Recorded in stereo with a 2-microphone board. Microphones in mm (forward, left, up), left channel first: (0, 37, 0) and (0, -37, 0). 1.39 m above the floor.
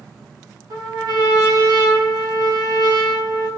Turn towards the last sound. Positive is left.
turn(degrees=-65)  # may be behind; listen again after turning